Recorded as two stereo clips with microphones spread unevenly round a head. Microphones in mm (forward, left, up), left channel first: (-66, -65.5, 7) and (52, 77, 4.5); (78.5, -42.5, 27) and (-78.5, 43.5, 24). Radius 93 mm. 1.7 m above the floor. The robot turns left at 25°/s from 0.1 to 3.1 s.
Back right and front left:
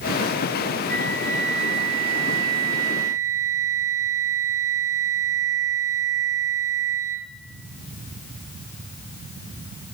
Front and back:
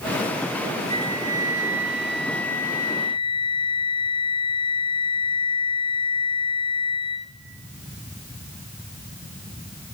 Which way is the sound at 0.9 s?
90° left.